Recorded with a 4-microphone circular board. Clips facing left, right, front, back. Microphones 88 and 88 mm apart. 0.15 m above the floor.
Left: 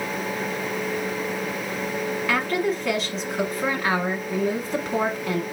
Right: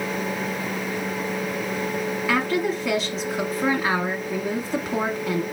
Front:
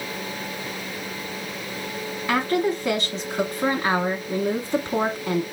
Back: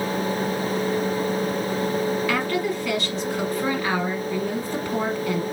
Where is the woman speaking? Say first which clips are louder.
Right 1 dB, front 2 dB; 5° right, 1.1 m.